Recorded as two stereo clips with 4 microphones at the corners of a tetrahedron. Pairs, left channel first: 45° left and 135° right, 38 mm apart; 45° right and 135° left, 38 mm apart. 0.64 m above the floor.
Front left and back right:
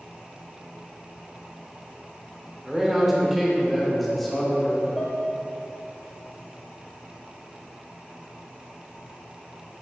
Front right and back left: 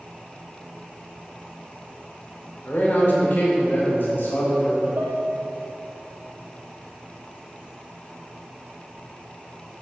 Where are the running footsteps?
I don't hear running footsteps.